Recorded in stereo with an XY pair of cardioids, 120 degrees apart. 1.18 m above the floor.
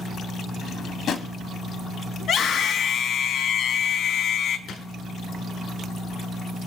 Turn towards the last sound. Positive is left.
turn(degrees=60)